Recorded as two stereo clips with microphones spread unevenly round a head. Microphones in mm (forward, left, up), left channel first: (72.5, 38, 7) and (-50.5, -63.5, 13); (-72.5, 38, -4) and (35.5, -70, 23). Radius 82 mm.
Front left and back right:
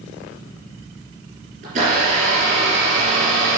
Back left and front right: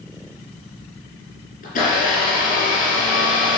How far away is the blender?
About 4 m.